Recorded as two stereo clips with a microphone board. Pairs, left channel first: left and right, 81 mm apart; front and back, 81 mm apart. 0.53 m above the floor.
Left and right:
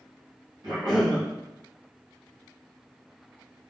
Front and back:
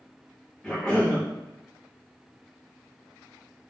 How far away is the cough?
About 1.9 m.